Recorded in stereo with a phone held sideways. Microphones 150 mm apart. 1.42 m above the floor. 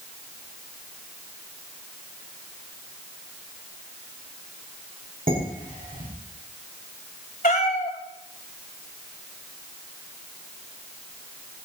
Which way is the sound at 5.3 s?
65° right (ahead or behind).